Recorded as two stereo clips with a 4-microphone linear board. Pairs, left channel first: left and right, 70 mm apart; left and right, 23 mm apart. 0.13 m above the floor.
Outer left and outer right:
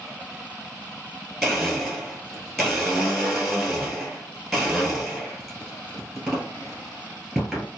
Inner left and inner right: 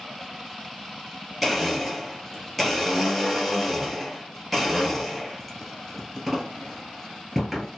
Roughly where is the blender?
Centre.